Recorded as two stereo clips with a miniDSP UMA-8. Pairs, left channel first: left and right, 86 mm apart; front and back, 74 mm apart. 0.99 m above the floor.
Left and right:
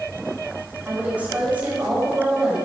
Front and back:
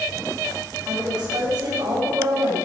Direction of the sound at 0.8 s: 160° right.